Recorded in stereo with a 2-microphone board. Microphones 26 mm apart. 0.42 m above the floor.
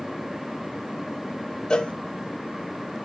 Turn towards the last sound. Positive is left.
turn(degrees=30)  # may be behind; listen again after turning